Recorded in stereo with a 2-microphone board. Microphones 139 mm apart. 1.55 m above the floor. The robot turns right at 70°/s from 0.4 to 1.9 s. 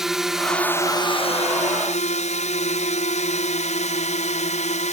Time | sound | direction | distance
0.0 | a drone | 5° right | ?